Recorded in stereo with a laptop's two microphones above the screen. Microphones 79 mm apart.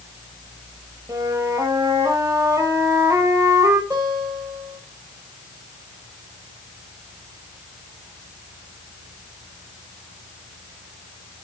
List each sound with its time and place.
1.1 s a flute: 50° right (ahead or behind), 1.3 m
3.9 s a guitar: 50° right (ahead or behind), 4 m